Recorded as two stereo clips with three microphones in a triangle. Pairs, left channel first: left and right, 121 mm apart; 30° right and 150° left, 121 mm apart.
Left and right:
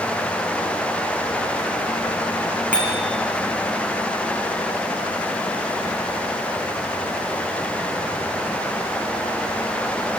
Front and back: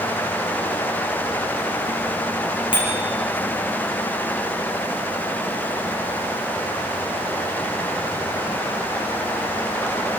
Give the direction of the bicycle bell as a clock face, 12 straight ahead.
12 o'clock.